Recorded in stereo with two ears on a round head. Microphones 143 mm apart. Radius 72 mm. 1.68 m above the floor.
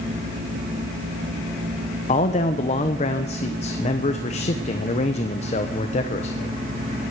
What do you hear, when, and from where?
2.1 s a man speaking: 45° left (ahead or behind), 1.0 m